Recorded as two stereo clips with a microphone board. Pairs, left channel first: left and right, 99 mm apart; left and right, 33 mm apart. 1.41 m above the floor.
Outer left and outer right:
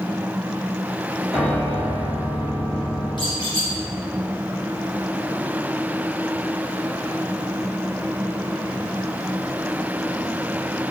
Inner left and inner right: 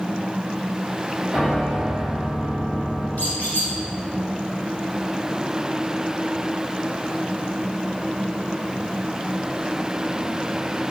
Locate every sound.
1.3 s a piano: 5° left (ahead or behind), 1.2 m
3.2 s a squeak: 50° left (ahead or behind), 1.1 m